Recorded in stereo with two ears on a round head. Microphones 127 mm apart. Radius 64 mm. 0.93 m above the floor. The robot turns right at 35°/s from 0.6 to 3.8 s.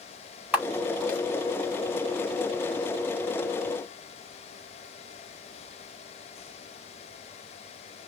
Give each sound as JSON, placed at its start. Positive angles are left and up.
{"t": 0.5, "sound": "a camera shutter", "side_deg": -10, "distance_m": 5.0}